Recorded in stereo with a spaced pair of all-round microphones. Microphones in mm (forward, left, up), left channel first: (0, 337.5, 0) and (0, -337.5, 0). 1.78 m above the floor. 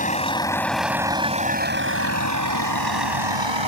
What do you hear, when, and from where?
0.0 s a vehicle: 10° left (ahead or behind); by 3.7 s 45° right (ahead or behind)